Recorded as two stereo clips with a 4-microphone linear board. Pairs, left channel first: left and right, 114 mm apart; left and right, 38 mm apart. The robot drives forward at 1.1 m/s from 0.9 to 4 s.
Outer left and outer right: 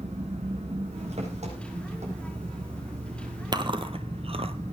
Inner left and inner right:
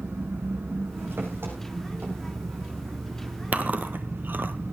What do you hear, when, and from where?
0.0 s an engine running: 70° right (ahead or behind), 7 m; by 4.7 s 75° right (ahead or behind), 7 m
3.5 s chewing: 40° right (ahead or behind), 1.4 m; by 4.5 s 60° right (ahead or behind), 1.1 m